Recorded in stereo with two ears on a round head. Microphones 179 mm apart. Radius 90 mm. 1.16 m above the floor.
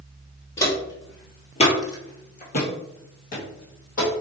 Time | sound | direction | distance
0.6 | footsteps | 15° left (ahead or behind) | 1.4 m